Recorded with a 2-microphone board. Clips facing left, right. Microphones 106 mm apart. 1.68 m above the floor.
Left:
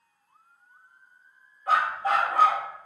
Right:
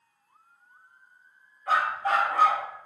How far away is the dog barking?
About 1.5 m.